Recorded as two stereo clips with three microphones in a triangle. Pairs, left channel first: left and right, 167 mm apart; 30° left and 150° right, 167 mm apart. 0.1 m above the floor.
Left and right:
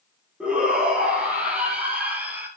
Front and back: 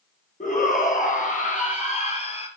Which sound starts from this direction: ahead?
A shout, at 0.4 s.